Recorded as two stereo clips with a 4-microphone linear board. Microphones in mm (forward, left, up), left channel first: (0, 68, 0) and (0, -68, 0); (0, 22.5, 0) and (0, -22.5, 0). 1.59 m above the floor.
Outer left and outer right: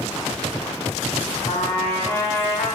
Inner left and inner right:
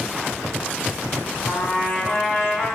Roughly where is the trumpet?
Left.